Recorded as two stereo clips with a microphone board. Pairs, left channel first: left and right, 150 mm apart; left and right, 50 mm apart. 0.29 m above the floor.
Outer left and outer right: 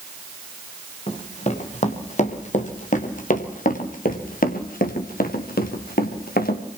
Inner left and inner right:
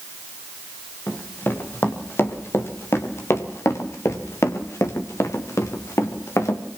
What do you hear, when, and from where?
1.1 s running footsteps: 45° left (ahead or behind), 4.5 m; by 6.6 s 85° left, 4 m